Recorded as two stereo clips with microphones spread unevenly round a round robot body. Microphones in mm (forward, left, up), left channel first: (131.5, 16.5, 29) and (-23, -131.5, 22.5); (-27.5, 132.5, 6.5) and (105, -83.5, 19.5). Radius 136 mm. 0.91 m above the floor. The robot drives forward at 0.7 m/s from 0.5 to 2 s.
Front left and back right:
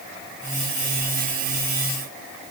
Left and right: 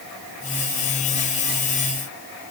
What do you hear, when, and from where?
Only background noise.